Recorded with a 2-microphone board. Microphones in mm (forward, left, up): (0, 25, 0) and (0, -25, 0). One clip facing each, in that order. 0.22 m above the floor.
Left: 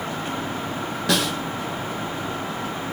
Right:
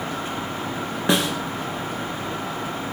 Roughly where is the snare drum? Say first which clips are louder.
Right 2 dB; right.